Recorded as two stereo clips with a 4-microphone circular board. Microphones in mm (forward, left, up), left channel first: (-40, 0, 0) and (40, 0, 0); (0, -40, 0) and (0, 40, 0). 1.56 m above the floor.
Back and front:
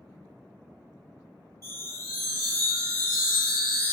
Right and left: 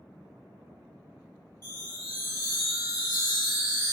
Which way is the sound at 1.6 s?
125° left.